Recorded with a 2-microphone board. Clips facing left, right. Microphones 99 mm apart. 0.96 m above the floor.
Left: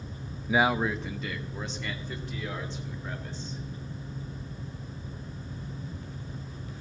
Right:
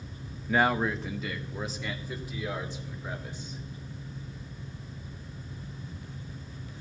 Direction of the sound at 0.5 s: 10° left (ahead or behind).